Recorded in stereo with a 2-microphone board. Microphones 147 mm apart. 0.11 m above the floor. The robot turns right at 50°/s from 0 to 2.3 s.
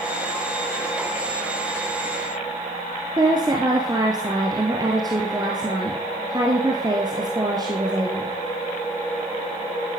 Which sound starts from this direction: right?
A woman speaking, at 3.2 s.